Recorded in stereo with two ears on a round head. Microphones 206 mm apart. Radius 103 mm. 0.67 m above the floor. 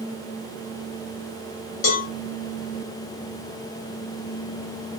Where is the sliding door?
No sliding door in this recording.